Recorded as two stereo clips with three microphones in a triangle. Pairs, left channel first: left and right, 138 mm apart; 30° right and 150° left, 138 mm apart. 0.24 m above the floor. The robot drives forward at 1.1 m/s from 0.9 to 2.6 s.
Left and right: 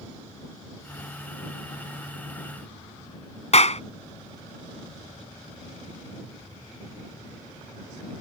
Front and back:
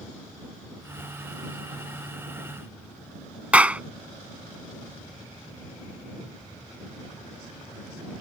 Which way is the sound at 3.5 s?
70° left.